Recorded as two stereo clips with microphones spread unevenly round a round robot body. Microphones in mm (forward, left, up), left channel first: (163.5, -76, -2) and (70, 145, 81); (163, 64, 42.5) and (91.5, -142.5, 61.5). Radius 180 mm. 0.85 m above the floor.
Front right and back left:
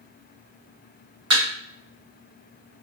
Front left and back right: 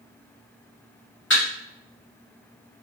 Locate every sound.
1.3 s a thud: 130° left, 2.5 m